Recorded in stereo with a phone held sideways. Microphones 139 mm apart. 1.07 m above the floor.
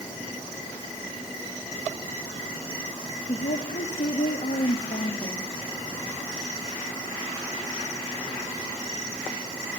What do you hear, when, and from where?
3.3 s a woman speaking: 65° left (ahead or behind), 1.1 m; by 5.6 s 70° left (ahead or behind), 2.5 m